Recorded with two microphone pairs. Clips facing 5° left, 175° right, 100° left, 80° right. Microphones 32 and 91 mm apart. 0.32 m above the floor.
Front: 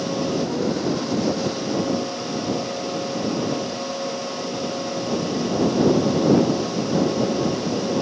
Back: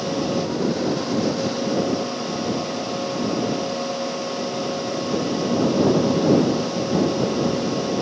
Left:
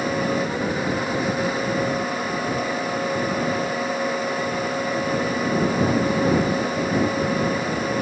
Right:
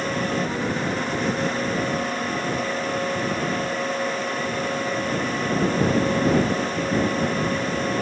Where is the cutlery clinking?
No cutlery clinking in this recording.